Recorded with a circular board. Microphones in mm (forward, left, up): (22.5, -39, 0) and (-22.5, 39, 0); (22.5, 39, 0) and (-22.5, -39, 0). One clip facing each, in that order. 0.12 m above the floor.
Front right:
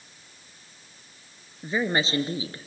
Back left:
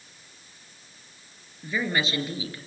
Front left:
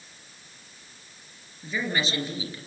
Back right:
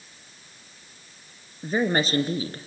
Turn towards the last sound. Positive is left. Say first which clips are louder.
# front right 2 dB, back right 6 dB
turn(degrees=-105)